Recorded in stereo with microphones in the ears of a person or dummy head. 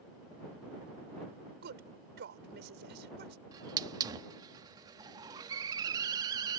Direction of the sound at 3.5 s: 25° right (ahead or behind).